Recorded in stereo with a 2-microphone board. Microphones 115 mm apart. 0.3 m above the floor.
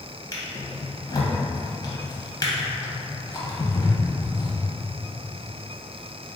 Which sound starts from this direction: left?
A drawer, at 0.3 s.